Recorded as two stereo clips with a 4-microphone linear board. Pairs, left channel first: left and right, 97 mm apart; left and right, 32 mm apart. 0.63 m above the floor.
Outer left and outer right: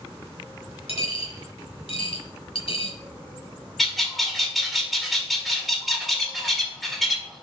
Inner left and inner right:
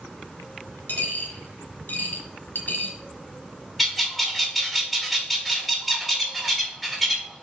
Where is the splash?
No splash in this recording.